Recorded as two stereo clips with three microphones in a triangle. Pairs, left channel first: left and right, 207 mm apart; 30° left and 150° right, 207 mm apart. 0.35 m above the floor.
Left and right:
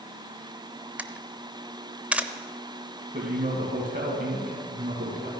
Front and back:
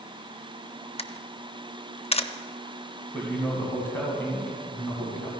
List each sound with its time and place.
1.0 s a camera shutter: 10° right, 0.6 m
3.1 s a man speaking: 50° right, 2.5 m